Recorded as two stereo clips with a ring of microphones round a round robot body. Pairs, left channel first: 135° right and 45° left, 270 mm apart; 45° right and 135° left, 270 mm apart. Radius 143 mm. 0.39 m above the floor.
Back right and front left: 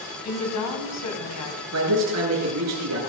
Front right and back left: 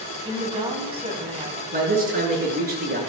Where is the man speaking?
75° left, 7.5 m.